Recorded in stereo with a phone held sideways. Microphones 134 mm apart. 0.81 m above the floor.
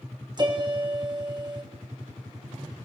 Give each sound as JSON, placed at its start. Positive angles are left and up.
{"t": 0.4, "sound": "a piano", "side_deg": -35, "distance_m": 2.5}